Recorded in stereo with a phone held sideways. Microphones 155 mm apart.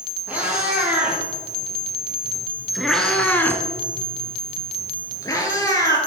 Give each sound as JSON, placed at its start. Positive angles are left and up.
{"t": 0.3, "sound": "a cat meowing", "side_deg": -10, "distance_m": 3.0}